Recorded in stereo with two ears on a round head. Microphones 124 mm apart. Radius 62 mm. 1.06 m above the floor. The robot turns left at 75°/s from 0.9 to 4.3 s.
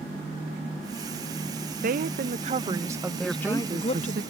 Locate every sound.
1.8 s a woman speaking: 75° right; by 4.2 s 110° left
3.2 s a woman speaking: 10° left; by 4.2 s 70° right